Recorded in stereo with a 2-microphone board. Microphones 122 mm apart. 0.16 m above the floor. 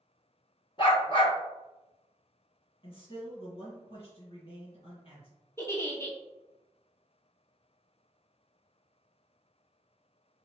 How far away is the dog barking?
About 1.4 m.